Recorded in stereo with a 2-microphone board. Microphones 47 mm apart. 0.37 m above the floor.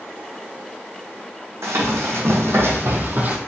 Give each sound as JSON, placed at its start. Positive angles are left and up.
{"t": 1.6, "sound": "running footsteps", "side_deg": -80, "distance_m": 1.4}